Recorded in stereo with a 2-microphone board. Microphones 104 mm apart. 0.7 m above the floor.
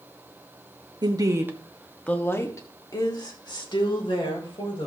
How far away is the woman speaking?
About 1.1 m.